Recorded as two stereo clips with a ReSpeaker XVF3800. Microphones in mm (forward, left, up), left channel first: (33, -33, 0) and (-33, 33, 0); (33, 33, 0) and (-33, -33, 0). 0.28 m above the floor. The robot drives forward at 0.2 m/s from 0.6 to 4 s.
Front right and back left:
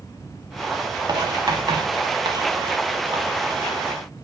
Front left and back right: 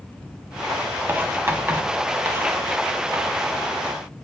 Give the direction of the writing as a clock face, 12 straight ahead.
7 o'clock.